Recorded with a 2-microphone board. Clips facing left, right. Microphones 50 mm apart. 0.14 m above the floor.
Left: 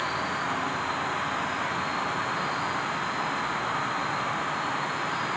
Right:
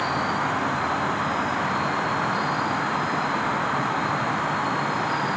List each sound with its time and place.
0.0 s an insect: 65° right (ahead or behind), 1.9 m